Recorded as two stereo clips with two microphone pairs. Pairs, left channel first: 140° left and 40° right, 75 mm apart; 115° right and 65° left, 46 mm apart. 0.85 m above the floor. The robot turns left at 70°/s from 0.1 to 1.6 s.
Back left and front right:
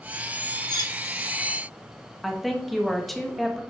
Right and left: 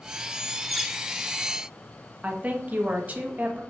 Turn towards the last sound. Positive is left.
turn(degrees=55)